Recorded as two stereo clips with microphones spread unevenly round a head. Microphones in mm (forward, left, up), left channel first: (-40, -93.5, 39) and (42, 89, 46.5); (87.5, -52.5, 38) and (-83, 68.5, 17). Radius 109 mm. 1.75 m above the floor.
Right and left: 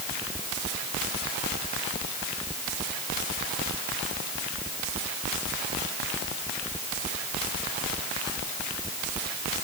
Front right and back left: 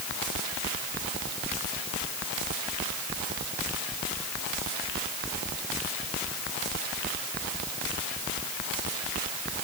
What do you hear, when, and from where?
Only background noise.